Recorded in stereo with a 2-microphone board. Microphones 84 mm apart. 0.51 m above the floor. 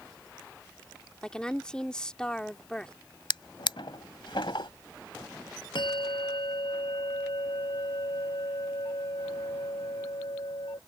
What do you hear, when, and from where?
1.2 s a woman speaking: 10° left (ahead or behind)
3.3 s a drawer: 85° left
5.8 s a bell: 75° left (ahead or behind)